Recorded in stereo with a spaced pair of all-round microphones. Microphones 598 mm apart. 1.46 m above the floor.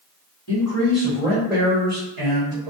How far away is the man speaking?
About 1.2 m.